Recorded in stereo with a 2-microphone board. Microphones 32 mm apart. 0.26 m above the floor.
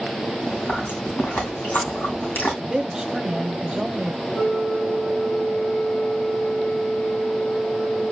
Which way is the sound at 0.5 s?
85° left.